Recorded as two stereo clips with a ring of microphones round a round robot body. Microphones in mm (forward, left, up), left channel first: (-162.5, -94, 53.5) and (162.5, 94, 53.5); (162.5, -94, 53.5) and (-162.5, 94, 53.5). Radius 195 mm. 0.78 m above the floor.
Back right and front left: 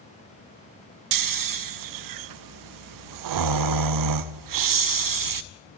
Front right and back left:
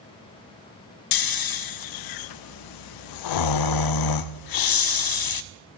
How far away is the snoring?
About 0.9 m.